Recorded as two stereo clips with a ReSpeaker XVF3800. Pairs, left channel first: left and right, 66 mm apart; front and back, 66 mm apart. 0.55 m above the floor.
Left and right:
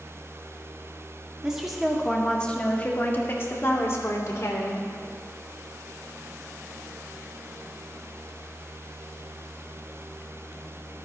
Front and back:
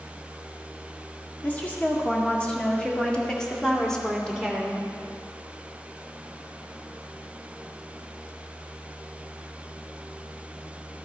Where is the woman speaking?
30° right, 1.2 m; by 4.8 s 90° left, 2.0 m.